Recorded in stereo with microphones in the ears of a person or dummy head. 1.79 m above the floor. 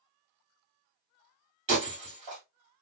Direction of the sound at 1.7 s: 30° right (ahead or behind).